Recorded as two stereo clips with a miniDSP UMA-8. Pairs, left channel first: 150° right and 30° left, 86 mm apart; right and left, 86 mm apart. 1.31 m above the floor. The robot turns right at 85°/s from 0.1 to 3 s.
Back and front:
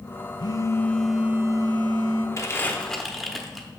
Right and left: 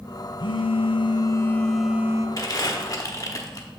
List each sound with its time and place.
0.4 s a phone buzzing: 120° right, 0.6 m; by 2.3 s 40° left, 0.6 m
2.4 s crumpling: 115° right, 1.1 m; by 3.7 s 60° right, 1.1 m